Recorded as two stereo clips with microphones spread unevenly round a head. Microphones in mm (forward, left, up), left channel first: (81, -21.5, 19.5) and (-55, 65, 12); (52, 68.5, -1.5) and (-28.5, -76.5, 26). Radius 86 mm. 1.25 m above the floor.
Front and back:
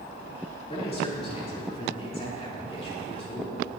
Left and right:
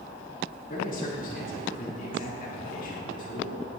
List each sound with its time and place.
0.7 s a man speaking: 20° left, 4 m